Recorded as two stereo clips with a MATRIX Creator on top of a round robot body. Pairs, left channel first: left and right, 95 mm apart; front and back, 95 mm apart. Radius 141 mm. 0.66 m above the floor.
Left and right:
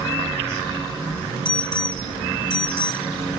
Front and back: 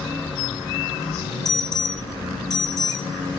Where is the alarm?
50° left, 5.5 m.